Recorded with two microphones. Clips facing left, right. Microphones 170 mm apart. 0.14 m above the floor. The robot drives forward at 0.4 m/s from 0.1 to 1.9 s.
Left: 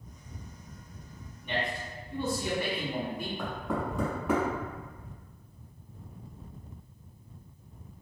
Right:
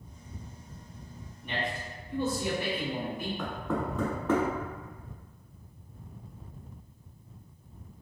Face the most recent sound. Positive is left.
turn(degrees=15)  # may be behind; listen again after turning